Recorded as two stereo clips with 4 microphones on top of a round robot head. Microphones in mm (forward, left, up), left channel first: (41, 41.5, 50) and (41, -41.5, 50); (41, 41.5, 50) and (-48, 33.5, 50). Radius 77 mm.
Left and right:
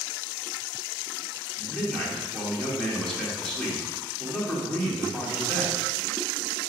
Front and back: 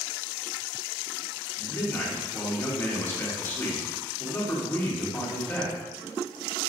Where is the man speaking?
20° left, 0.9 m.